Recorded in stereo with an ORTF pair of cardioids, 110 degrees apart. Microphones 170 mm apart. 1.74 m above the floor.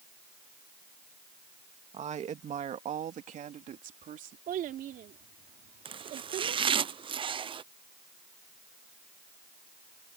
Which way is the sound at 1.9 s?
45° right.